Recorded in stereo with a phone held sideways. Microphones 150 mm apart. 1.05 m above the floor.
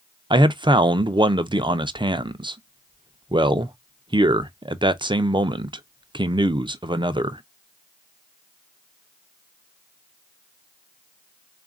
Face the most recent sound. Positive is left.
turn(degrees=-30)  # may be behind; listen again after turning